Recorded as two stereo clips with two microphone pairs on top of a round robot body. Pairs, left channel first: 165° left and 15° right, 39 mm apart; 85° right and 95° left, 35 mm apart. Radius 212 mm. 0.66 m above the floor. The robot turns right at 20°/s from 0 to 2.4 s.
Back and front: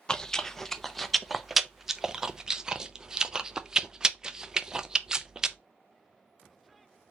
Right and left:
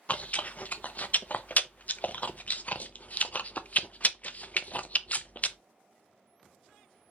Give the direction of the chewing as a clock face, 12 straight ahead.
4 o'clock.